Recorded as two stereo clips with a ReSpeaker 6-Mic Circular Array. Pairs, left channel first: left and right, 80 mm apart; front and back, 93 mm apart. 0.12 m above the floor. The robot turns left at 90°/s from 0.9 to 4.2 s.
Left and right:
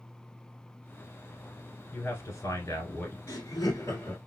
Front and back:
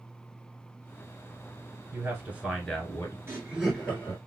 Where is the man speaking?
150° left, 1.3 m; by 3.2 s 40° left, 1.3 m.